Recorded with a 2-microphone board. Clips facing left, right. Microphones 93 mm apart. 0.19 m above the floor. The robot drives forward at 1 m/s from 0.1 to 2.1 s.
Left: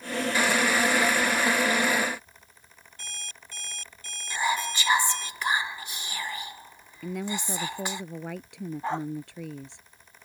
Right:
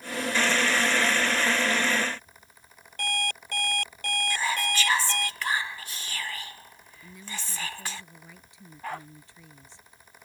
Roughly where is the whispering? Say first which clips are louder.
Left 4 dB; centre.